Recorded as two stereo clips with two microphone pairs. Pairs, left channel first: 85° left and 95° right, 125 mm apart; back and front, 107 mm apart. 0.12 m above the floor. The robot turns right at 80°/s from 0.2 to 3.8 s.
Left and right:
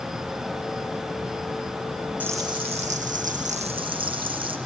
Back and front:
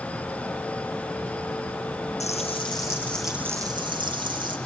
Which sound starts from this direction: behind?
Frying, at 2.2 s.